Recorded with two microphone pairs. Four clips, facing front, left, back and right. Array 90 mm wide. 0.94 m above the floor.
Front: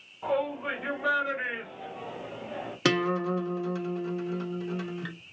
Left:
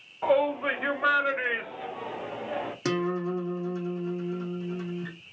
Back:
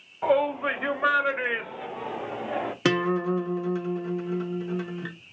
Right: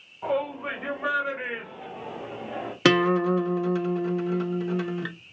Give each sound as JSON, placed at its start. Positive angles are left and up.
{"t": 0.2, "sound": "a shout", "azimuth_deg": 150, "distance_m": 2.5}
{"t": 2.9, "sound": "a guitar", "azimuth_deg": -95, "distance_m": 0.6}